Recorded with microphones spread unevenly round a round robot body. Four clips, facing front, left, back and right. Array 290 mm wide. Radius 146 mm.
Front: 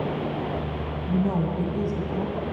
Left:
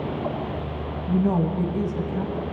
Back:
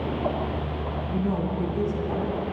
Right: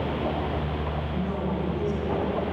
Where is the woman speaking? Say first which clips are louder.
Left 11 dB, front 3 dB; 70° left, 3 m; by 2.4 s 50° left, 3.5 m.